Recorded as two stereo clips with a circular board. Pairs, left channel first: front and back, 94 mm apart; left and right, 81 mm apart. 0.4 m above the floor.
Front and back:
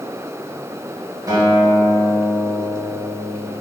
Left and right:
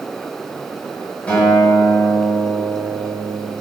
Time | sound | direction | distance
1.3 | a guitar | 155° left | 1.3 m